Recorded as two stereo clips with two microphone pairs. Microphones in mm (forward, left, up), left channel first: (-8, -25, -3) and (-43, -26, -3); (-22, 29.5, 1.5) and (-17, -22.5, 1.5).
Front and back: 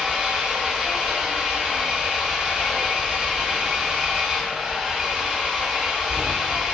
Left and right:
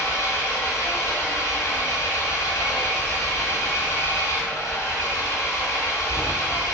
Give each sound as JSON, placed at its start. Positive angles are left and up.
{"t": 0.0, "sound": "an engine running", "azimuth_deg": 110, "distance_m": 3.5}